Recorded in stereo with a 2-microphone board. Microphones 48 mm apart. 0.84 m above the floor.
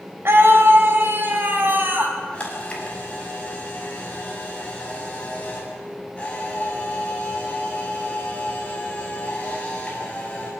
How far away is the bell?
No bell in this recording.